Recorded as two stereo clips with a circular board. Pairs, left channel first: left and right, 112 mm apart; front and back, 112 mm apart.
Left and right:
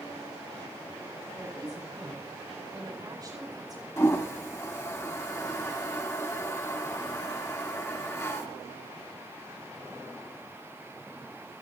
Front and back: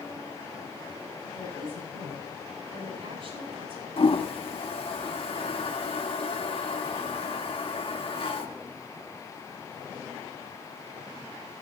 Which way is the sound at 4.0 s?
30° left.